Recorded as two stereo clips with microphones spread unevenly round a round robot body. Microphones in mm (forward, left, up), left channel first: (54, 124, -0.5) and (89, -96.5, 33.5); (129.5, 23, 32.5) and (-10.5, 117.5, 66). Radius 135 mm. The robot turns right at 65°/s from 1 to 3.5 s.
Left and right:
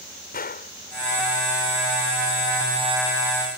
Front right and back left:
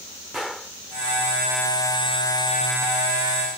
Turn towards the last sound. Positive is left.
turn(degrees=-145)